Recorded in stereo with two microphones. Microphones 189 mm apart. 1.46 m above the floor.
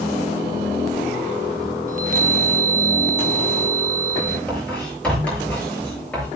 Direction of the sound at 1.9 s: 45° right (ahead or behind).